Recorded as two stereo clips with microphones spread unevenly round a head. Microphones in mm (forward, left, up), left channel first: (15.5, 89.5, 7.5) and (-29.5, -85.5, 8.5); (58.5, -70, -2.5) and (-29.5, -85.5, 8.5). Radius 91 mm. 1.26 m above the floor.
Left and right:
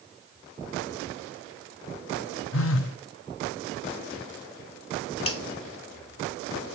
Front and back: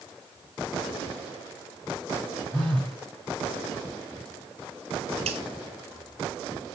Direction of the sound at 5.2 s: 135° left.